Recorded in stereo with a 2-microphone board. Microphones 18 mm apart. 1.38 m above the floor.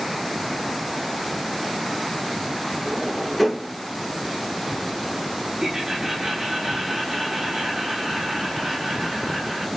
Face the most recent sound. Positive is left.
turn(degrees=-25)  # may be behind; listen again after turning